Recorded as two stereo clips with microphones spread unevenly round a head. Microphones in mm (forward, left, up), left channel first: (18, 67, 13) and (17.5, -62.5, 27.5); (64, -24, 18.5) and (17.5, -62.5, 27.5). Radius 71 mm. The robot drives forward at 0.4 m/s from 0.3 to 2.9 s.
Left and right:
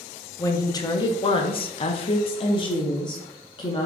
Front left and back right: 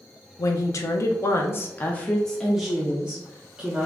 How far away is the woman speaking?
About 0.8 m.